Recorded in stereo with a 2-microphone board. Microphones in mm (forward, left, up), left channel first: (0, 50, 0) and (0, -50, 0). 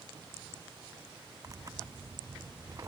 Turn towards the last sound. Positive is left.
turn(degrees=-35)  # may be behind; listen again after turning